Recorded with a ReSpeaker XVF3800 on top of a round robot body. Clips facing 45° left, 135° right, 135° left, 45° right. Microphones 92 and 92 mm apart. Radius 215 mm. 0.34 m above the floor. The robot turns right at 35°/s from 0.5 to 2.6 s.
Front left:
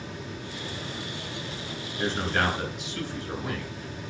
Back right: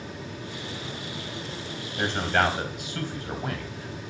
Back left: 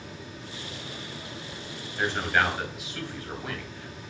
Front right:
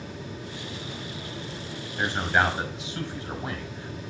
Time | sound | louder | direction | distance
2.0 | a man speaking | back right 3 dB, front right 1 dB | 125° right | 3.5 m